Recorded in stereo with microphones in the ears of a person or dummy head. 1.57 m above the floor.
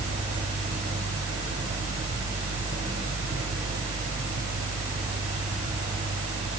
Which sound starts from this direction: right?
A fan, at 0.0 s.